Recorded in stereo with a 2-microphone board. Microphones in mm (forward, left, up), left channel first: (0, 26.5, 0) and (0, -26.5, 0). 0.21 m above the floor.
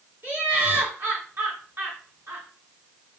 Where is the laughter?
50° right (ahead or behind), 2 m.